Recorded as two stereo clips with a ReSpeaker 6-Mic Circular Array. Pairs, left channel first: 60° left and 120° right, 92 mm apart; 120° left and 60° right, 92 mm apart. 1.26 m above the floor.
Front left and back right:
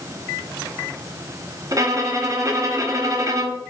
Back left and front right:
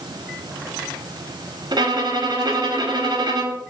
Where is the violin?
80° right, 0.9 m.